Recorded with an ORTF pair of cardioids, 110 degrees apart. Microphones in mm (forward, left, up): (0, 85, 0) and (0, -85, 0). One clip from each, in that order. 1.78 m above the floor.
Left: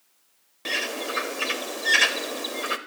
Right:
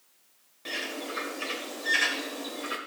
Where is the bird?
45° left, 0.8 m.